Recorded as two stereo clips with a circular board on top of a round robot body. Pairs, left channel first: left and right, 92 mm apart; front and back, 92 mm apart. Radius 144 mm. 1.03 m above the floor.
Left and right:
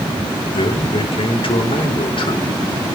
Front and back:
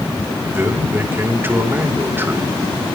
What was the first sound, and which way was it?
A man speaking, 115° left.